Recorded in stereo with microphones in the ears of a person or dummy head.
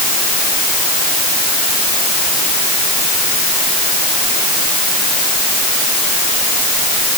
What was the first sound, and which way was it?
Only background noise.